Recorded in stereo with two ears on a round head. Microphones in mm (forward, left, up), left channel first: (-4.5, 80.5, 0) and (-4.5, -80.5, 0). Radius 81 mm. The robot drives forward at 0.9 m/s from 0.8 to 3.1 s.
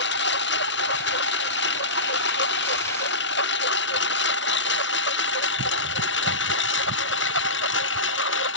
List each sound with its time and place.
0.0 s a lawn mower: 65° left (ahead or behind); by 8.6 s 75° left (ahead or behind)